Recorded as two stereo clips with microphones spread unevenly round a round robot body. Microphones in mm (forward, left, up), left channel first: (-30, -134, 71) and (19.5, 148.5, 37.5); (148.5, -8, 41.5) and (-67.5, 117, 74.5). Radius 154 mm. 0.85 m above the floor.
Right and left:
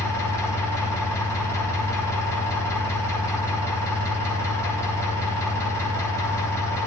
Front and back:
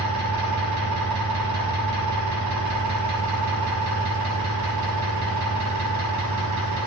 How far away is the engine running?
About 4.5 m.